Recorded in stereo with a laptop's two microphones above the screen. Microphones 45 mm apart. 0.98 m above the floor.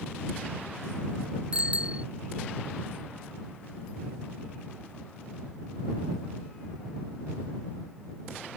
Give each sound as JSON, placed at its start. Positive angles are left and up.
{"t": 1.5, "sound": "a bicycle bell", "side_deg": -25}